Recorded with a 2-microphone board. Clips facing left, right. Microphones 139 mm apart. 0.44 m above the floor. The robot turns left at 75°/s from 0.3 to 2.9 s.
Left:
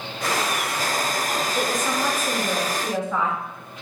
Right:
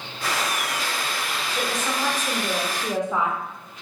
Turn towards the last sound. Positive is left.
turn(degrees=-15)  # may be behind; listen again after turning